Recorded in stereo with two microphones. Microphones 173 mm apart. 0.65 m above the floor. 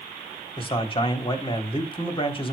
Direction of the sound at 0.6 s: 30° left (ahead or behind).